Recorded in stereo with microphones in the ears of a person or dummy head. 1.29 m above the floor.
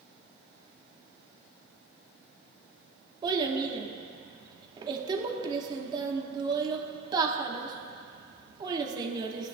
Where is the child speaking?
25° right (ahead or behind), 1.1 m.